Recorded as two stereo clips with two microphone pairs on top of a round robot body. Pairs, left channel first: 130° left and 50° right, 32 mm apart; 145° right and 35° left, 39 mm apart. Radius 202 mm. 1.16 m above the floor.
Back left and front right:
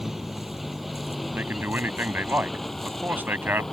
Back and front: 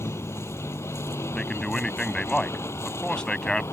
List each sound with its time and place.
0.0 s a vehicle: 135° right; by 3.7 s 150° right
1.3 s a man speaking: 70° right